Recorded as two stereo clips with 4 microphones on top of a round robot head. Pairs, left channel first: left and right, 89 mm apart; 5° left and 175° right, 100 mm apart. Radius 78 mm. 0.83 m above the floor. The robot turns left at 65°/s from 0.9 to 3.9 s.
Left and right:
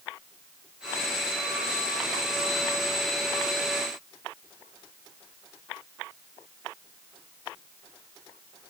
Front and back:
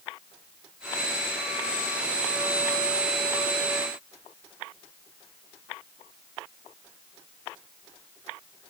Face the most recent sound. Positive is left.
No sound to turn to.